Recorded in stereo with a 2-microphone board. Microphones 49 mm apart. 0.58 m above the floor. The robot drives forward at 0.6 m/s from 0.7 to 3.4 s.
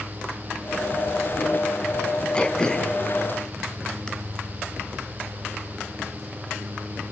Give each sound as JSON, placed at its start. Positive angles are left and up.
{"t": 2.4, "sound": "throat clearing", "side_deg": 15, "distance_m": 1.8}